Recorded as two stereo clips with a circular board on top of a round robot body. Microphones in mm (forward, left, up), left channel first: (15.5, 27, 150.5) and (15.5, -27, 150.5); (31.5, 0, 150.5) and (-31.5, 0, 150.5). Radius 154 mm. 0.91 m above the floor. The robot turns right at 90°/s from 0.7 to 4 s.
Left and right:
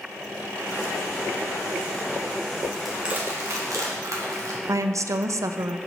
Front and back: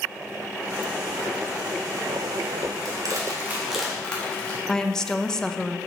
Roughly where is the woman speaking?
Right.